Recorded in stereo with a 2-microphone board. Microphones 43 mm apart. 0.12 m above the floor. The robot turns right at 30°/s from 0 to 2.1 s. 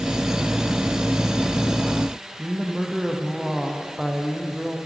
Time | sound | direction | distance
2.4 | a woman speaking | 10° right (ahead or behind) | 4.5 m